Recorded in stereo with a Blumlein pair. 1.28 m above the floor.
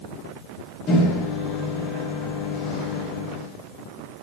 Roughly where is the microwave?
Ahead left.